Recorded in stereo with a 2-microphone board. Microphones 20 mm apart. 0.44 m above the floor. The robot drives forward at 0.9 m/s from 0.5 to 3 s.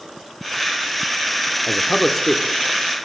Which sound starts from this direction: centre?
A man speaking, at 1.7 s.